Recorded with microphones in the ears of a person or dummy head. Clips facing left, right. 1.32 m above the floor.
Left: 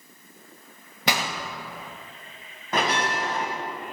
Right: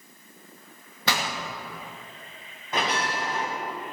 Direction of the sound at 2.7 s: 45° left (ahead or behind).